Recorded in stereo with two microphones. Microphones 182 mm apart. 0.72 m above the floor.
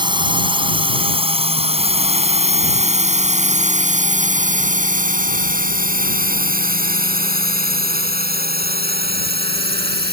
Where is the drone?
25° right (ahead or behind); by 10.1 s 70° right (ahead or behind).